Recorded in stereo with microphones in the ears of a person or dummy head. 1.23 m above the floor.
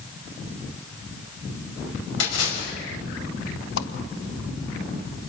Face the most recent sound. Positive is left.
turn(degrees=70)  # may be behind; listen again after turning